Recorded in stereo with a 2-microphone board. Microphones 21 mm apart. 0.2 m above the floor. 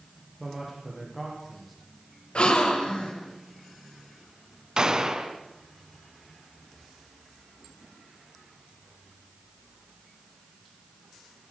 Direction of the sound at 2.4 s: 60° left (ahead or behind).